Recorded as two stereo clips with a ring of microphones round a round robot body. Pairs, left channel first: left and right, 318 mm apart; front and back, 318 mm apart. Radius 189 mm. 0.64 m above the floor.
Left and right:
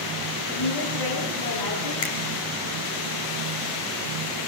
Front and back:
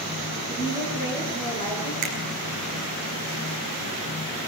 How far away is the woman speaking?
About 9.5 m.